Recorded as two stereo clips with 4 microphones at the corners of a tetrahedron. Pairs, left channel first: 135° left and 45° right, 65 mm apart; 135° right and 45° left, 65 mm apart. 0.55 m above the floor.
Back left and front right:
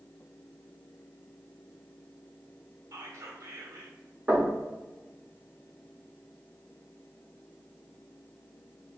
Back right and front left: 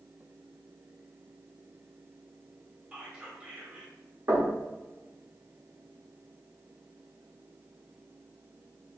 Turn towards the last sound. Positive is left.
turn(degrees=20)